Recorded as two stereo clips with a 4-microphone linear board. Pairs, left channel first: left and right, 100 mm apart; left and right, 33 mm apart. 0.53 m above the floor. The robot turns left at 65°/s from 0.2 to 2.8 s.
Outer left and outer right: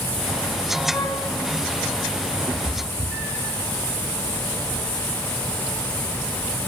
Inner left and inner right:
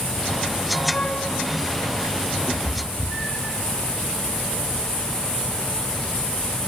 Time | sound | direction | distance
0.9 | a flute | 30° left (ahead or behind) | 2.0 m
2.5 | a cat meowing | 60° right (ahead or behind) | 2.5 m